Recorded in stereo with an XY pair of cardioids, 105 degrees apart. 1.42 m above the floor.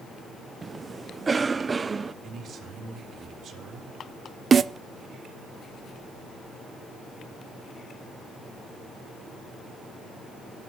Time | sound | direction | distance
0.6 | a cough | 30° right | 0.5 m
2.2 | a man speaking | 55° right | 3.5 m
4.5 | a snare drum | 40° right | 0.6 m